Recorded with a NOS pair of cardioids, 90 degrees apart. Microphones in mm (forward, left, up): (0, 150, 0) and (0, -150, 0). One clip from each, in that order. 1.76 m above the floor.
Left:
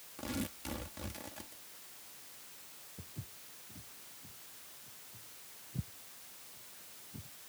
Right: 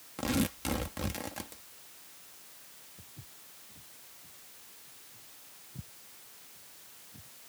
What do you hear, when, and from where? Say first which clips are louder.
0.2 s tearing paper: right 9 dB; 60° right
3.0 s footsteps: left 1 dB; 40° left